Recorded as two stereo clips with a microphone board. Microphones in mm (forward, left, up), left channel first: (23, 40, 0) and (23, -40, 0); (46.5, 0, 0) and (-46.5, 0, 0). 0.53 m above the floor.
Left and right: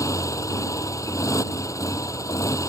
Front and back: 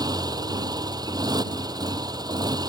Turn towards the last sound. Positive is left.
turn(degrees=135)